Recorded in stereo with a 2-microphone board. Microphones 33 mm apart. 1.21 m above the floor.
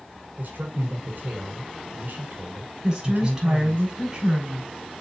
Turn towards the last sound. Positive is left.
turn(degrees=-20)  # may be behind; listen again after turning